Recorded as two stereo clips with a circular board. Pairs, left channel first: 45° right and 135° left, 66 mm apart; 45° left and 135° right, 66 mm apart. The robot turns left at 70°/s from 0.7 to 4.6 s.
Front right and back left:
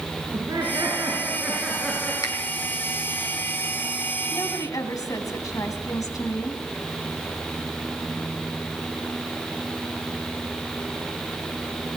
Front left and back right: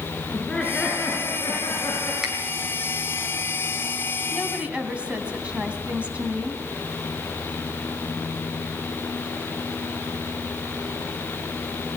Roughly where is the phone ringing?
I don't hear a phone ringing.